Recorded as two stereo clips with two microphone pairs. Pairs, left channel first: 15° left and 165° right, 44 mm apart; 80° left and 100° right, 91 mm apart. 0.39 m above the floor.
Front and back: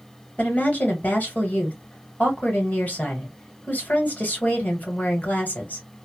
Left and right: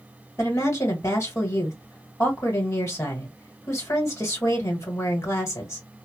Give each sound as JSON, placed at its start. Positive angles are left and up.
{"t": 0.4, "sound": "a woman speaking", "azimuth_deg": 40, "distance_m": 1.5}